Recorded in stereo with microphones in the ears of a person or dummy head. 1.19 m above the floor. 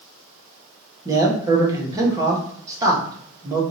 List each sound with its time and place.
1.1 s a man speaking: 20° right (ahead or behind), 1.2 m